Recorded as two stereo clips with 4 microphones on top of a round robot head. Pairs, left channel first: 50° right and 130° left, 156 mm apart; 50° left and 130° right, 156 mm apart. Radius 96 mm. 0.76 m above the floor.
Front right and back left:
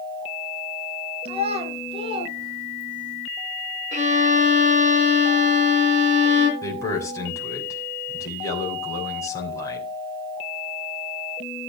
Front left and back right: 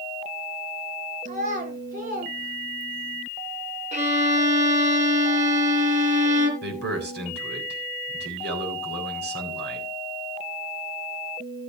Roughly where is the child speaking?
Behind.